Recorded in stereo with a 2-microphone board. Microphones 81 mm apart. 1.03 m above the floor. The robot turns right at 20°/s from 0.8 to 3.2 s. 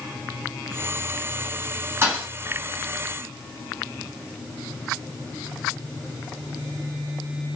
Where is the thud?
30° right (ahead or behind), 1.2 m; by 2.3 s 25° right (ahead or behind), 1.2 m.